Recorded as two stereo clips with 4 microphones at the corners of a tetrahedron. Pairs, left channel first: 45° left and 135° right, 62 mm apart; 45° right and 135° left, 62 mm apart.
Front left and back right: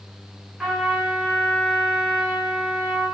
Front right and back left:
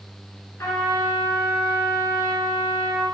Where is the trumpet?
55° right, 1.3 m.